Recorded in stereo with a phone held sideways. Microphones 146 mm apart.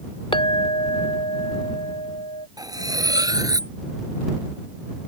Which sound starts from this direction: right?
Cutlery clinking, at 2.6 s.